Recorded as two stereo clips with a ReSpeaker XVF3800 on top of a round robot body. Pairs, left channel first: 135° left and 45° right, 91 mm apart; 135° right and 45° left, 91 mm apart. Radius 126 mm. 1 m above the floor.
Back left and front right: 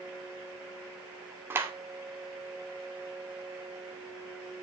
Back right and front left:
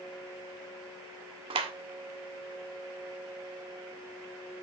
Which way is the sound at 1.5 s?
20° left.